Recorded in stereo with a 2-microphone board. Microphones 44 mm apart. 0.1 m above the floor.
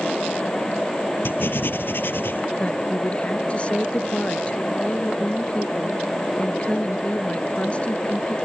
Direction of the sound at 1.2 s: 60° left (ahead or behind).